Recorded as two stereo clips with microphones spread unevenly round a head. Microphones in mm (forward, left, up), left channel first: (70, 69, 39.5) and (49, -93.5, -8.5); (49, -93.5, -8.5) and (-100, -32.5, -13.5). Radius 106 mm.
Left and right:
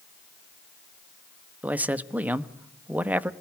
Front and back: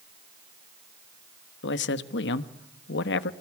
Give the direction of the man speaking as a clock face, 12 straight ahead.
1 o'clock.